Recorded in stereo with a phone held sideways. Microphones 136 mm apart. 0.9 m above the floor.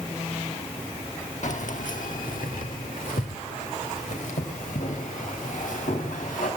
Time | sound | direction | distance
1.4 | keys jangling | 65° left (ahead or behind) | 1.2 m